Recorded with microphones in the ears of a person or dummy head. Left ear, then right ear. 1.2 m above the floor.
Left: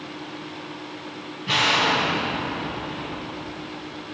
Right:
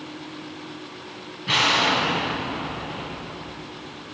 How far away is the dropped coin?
No dropped coin in this recording.